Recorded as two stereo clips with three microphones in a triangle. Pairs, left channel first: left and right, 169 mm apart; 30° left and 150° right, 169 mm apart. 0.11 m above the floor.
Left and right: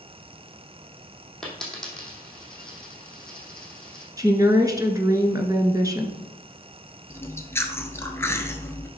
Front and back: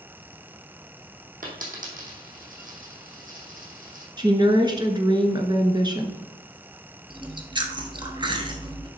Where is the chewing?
160° left, 1.0 m.